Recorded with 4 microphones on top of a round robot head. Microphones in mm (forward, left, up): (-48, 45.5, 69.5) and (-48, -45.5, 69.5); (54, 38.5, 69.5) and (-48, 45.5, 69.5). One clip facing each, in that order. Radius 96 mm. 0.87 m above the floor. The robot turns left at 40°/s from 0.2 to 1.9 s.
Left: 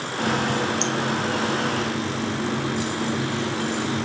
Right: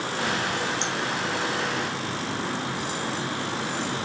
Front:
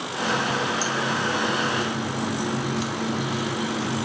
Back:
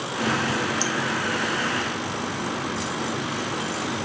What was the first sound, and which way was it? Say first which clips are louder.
A running tap: left 6 dB, even; 140° left.